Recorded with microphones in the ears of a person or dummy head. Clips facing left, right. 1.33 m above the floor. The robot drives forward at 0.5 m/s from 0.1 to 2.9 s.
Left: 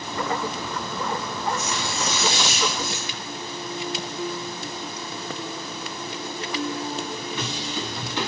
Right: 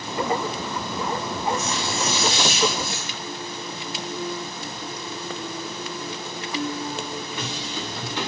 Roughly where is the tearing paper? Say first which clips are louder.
Right 2 dB; left.